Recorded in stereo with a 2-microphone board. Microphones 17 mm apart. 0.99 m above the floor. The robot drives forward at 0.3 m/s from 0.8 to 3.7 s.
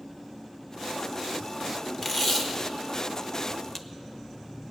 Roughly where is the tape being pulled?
Centre.